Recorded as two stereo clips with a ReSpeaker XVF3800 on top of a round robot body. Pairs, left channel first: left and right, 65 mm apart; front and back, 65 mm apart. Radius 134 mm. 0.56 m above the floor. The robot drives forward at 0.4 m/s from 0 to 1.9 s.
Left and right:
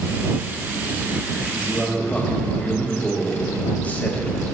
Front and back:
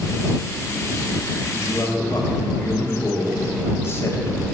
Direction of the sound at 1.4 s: 25° left.